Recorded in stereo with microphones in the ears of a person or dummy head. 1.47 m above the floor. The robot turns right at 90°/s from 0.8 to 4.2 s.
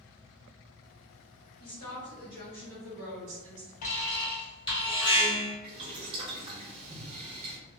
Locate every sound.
1.6 s a woman speaking: 115° left, 1.1 m; by 3.7 s 55° right, 1.1 m
3.8 s an alarm: 105° left, 0.6 m; by 5.5 s 140° left, 0.6 m
5.6 s boiling: 35° right (ahead or behind), 0.8 m